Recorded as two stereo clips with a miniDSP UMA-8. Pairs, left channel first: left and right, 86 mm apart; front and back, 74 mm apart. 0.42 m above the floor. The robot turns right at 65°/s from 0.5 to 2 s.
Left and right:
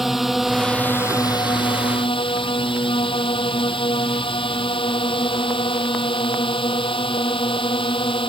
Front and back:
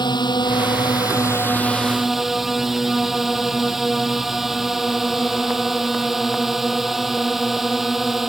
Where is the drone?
5° right; by 8.3 s 95° left.